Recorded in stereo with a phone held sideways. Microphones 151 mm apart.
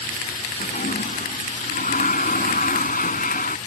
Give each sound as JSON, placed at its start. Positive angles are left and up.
{"t": 0.6, "sound": "a toilet flushing", "side_deg": 65}